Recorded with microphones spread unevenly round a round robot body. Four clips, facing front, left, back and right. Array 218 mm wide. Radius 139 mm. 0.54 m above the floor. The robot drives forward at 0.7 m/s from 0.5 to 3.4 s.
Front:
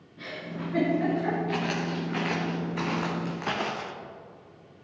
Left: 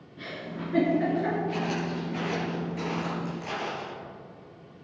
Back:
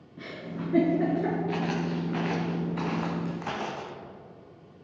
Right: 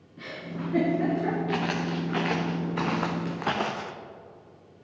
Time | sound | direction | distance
0.2 | a giggle | 170° right | 3 m
1.5 | footsteps | 80° right | 2.5 m